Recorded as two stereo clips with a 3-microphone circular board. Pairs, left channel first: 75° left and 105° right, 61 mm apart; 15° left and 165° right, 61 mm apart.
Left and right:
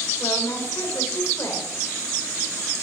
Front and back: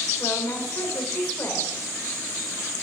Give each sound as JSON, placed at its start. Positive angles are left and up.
{"t": 0.2, "sound": "a woman speaking", "azimuth_deg": 55, "distance_m": 2.5}